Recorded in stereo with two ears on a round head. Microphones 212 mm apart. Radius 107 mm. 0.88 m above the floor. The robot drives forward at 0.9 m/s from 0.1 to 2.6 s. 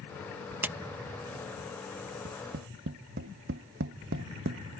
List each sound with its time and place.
0.6 s a clap: 10° right (ahead or behind)
2.2 s tapping: 55° right (ahead or behind); by 4.8 s 45° right (ahead or behind)